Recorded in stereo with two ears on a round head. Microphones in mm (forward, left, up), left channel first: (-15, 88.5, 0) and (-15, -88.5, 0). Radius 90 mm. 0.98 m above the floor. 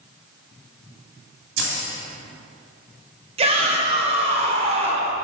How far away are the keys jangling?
About 1.8 m.